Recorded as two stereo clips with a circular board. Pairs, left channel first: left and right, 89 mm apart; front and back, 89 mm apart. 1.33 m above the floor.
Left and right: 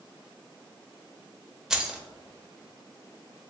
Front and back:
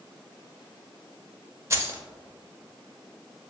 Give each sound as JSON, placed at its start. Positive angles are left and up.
{"t": 1.7, "sound": "keys jangling", "azimuth_deg": -165, "distance_m": 0.6}